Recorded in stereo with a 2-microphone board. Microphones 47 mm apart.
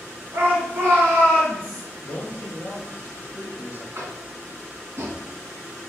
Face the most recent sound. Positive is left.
turn(degrees=-55)  # may be behind; listen again after turning